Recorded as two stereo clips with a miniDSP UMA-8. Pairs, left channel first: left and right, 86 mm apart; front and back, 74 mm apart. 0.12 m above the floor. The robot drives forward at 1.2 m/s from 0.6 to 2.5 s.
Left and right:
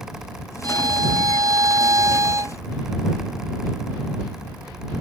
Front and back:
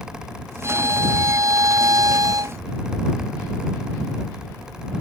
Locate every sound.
0.6 s a violin: 130° right; by 2.6 s 145° right